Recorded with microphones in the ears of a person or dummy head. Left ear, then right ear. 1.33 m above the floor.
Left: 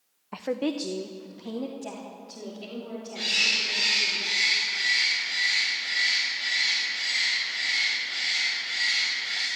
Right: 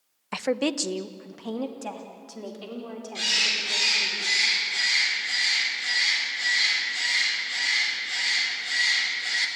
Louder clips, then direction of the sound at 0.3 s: Right 3 dB; 60° right (ahead or behind).